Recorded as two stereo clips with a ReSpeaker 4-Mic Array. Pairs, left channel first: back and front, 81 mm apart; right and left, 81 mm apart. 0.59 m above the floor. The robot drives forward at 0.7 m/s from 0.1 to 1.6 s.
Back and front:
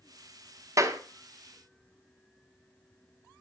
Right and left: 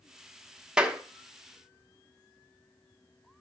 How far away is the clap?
About 1.1 m.